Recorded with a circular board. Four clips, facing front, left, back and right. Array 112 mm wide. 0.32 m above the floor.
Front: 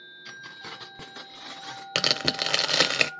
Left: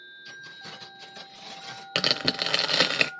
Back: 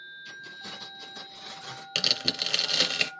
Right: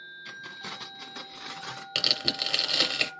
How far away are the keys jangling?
About 1.9 m.